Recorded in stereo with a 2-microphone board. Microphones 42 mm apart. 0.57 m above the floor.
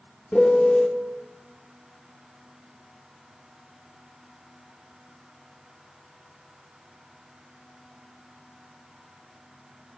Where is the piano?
20° left (ahead or behind), 1.1 m.